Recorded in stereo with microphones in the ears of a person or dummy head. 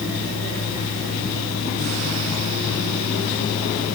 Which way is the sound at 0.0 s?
70° left (ahead or behind).